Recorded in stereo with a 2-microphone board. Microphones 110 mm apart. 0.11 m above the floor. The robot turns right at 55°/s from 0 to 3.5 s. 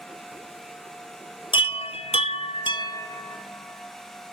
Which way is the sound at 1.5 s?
50° left (ahead or behind).